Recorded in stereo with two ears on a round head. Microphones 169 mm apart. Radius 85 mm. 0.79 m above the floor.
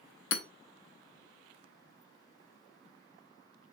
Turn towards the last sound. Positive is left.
turn(degrees=65)  # may be behind; listen again after turning